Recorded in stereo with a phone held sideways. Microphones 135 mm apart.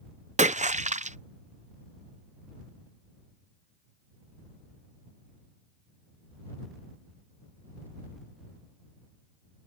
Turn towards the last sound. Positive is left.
turn(degrees=-60)  # may be behind; listen again after turning